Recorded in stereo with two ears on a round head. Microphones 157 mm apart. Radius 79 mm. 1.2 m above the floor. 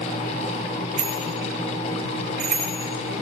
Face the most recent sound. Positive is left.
turn(degrees=-60)  # may be behind; listen again after turning